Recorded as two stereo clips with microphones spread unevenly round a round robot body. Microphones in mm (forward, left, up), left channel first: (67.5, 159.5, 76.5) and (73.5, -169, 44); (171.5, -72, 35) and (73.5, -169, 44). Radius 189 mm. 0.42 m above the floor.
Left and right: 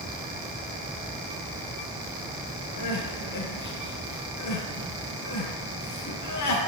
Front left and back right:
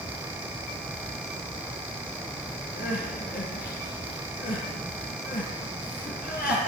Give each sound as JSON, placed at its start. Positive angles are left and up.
{"t": 2.8, "sound": "crying", "azimuth_deg": 55, "distance_m": 5.0}